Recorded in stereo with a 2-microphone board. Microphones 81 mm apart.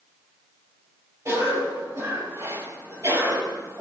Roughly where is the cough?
Right.